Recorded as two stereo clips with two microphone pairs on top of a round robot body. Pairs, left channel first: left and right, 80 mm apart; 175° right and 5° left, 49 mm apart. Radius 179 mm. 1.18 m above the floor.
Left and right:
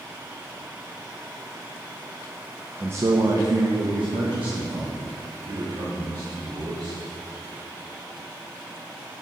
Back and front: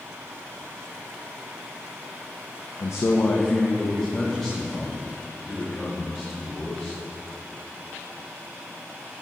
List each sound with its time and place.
2.8 s a man speaking: 160° right, 0.9 m; by 7.0 s 90° right, 6.5 m